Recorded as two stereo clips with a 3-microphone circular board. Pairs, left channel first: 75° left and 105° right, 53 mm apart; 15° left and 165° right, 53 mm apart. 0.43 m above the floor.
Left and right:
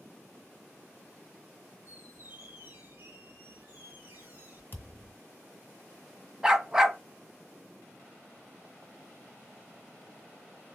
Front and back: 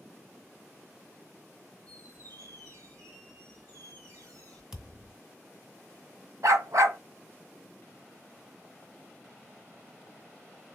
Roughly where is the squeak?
Behind right.